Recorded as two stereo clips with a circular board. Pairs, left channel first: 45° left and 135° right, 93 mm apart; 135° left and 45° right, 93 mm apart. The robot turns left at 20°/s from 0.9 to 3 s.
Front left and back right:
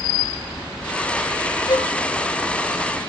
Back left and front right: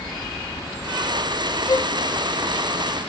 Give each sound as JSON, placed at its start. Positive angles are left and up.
{"t": 1.7, "sound": "a violin", "azimuth_deg": 90, "distance_m": 0.7}